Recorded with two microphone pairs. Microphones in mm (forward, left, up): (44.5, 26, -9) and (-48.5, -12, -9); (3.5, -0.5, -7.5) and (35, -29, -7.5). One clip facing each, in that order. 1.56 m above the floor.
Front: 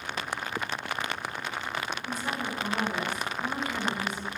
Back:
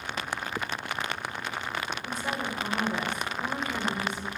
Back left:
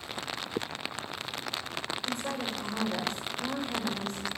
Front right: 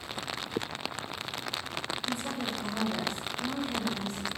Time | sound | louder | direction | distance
2.0 | a woman speaking | even, back left 1 dB | 145° left | 7 m